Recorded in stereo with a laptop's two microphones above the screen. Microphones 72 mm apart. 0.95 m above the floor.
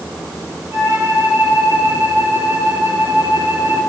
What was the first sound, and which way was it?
A flute, 45° right (ahead or behind).